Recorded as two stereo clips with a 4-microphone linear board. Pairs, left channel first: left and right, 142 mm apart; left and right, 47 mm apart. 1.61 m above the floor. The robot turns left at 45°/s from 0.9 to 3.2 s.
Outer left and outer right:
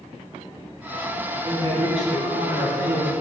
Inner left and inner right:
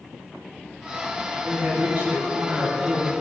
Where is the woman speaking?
30° right, 2 m; by 3.2 s 110° right, 2 m.